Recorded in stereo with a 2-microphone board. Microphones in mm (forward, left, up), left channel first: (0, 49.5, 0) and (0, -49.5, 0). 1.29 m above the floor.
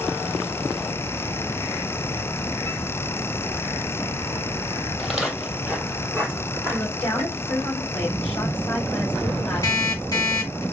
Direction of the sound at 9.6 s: 35° left (ahead or behind).